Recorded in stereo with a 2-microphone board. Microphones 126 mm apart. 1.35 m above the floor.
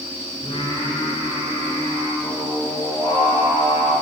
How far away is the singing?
About 2.5 m.